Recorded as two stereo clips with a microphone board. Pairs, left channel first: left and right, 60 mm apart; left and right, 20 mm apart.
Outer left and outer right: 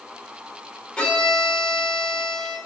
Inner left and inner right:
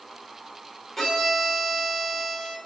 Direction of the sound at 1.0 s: 15° left (ahead or behind).